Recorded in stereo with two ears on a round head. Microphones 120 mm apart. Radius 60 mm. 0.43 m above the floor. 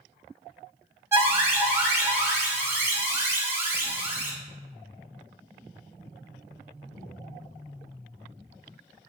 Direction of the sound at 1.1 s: 20° right (ahead or behind).